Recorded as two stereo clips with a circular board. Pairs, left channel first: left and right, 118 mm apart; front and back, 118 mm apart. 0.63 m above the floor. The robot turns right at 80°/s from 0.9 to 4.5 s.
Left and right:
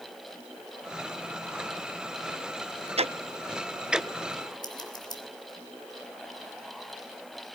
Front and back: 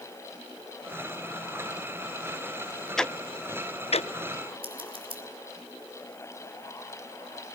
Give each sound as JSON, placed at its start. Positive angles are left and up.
{"t": 3.0, "sound": "ticking", "azimuth_deg": -85, "distance_m": 0.6}
{"t": 4.6, "sound": "scissors", "azimuth_deg": 145, "distance_m": 3.0}